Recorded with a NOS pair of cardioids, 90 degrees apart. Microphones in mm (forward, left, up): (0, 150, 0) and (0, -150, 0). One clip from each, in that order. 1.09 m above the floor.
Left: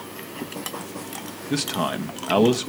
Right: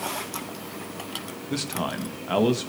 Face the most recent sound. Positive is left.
turn(degrees=20)